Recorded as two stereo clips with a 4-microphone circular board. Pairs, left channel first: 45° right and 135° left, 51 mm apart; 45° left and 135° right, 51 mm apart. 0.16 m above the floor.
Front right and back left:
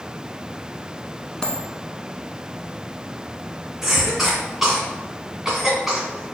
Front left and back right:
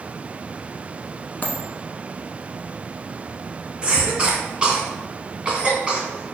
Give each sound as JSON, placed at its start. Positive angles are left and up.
{"t": 1.4, "sound": "a dropped coin", "azimuth_deg": 25, "distance_m": 0.7}
{"t": 3.8, "sound": "a cough", "azimuth_deg": -135, "distance_m": 1.7}